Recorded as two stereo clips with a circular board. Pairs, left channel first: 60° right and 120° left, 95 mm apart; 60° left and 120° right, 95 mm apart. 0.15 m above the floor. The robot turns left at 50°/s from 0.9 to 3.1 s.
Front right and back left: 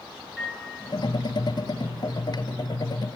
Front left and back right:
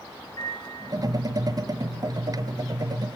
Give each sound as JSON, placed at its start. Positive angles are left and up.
{"t": 0.4, "sound": "a piano", "azimuth_deg": 25, "distance_m": 2.5}